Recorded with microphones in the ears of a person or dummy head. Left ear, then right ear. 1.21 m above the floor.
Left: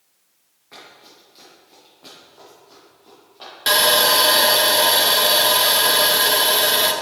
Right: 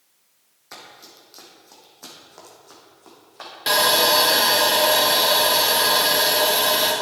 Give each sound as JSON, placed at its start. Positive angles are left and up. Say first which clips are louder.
{"t": 0.7, "sound": "running footsteps", "louder": "right 1 dB", "side_deg": -60, "distance_m": 3.5}
{"t": 3.7, "sound": "sawing", "louder": "left 2 dB", "side_deg": 10, "distance_m": 0.9}